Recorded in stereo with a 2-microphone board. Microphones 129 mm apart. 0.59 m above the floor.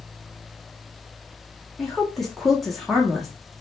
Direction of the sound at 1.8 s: Centre (ahead or behind).